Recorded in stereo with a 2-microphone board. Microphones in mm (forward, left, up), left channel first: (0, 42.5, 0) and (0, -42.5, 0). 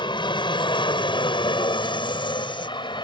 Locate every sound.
0.0 s an aircraft: 65° left (ahead or behind)